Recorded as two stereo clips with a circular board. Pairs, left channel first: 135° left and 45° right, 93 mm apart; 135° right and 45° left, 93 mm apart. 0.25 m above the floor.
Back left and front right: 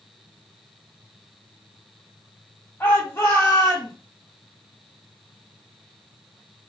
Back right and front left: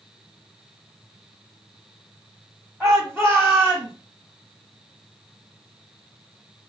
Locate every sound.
2.8 s a shout: 105° left, 1.3 m; by 3.9 s 125° left, 1.6 m